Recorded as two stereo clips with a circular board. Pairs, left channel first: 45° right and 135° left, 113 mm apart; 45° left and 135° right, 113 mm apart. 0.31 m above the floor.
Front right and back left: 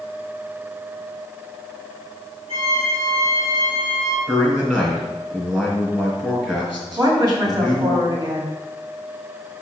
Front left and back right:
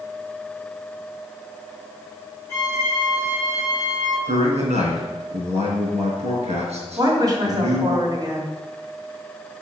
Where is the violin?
115° left, 3 m.